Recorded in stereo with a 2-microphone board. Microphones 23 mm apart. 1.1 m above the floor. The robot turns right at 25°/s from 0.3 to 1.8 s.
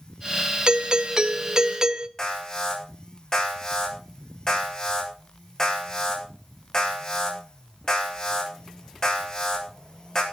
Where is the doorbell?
45° right (ahead or behind), 0.7 m; by 2.1 s 30° right (ahead or behind), 0.7 m.